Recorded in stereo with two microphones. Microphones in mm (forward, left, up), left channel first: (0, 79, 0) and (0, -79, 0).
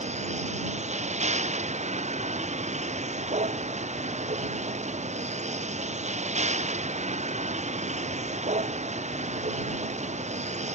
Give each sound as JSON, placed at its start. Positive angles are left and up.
{"t": 0.0, "sound": "a vehicle", "side_deg": -45}